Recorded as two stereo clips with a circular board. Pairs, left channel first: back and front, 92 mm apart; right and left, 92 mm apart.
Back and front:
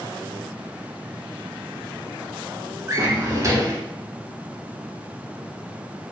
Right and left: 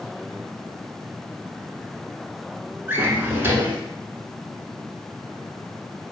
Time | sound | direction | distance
2.9 | a drawer | 35° left | 0.5 m